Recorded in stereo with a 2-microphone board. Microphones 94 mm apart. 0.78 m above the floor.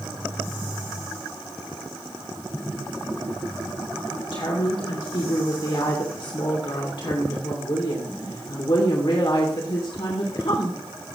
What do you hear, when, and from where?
4.3 s a woman speaking: 60° left (ahead or behind), 2.5 m